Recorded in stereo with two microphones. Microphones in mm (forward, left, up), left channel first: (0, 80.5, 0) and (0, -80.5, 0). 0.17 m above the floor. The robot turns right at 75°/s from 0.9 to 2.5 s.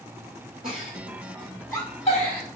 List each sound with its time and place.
0.6 s a giggle: 45° right (ahead or behind), 1.2 m; by 2.4 s 65° left (ahead or behind), 1.2 m